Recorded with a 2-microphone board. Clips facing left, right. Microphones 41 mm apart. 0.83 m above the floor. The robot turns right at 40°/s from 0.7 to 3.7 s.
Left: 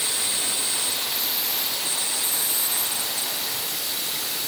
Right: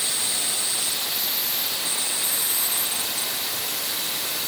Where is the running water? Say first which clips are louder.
Even; 150° left, 0.9 m; by 4.5 s 90° right, 0.9 m.